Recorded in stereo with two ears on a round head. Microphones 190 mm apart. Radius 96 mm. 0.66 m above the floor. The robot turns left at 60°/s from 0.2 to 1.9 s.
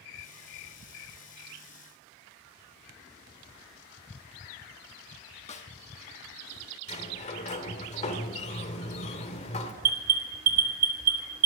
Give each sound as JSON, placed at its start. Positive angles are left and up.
{"t": 5.5, "sound": "a snare drum", "side_deg": 35, "distance_m": 1.0}
{"t": 6.9, "sound": "a sliding door", "side_deg": 35, "distance_m": 1.4}
{"t": 9.8, "sound": "an alarm", "side_deg": -40, "distance_m": 1.8}